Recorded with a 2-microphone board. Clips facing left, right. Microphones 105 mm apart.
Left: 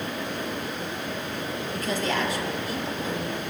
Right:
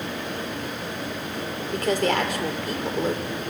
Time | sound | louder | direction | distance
1.7 | a woman speaking | right 6 dB | 65° right (ahead or behind) | 2.5 m